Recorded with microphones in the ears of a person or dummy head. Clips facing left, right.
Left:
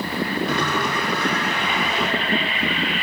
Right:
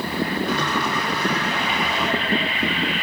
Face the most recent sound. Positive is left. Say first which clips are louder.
# even
turn(degrees=50)  # may be behind; listen again after turning